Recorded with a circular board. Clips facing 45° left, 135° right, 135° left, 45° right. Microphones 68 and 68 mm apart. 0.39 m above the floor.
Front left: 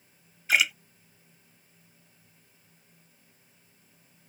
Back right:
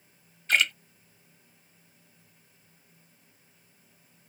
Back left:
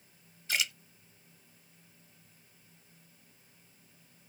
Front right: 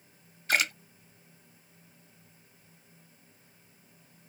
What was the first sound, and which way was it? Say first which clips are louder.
A splash: even, front right 6 dB; 35° right.